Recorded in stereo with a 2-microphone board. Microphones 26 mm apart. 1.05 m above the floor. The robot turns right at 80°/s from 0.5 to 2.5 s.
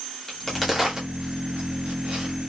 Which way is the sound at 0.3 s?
10° left (ahead or behind).